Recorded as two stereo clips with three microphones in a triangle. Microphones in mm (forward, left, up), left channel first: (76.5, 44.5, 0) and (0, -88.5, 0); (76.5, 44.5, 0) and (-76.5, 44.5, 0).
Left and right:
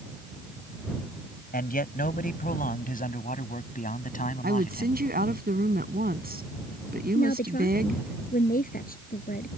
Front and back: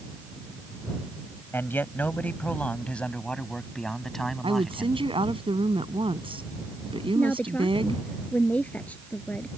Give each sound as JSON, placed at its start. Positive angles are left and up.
{"t": 1.5, "sound": "a man speaking", "azimuth_deg": 75}
{"t": 4.4, "sound": "a woman speaking", "azimuth_deg": -125}
{"t": 7.2, "sound": "a woman speaking", "azimuth_deg": 80}